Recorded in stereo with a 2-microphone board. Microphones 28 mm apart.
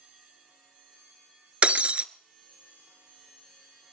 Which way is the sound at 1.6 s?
45° right (ahead or behind).